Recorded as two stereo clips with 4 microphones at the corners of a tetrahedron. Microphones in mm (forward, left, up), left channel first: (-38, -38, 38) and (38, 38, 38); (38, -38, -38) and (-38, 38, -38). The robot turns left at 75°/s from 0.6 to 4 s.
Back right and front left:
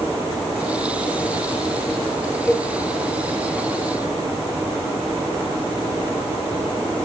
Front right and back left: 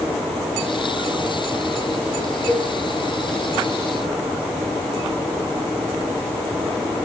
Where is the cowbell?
140° right, 1.5 m; by 2.7 s 155° right, 1.5 m.